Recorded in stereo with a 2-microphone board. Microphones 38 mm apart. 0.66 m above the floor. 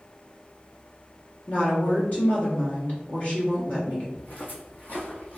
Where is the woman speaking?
35° left (ahead or behind), 1.0 m.